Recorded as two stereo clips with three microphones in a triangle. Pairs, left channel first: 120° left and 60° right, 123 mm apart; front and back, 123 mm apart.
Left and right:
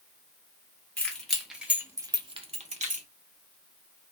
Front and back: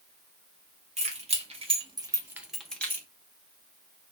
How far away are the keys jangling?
About 0.9 m.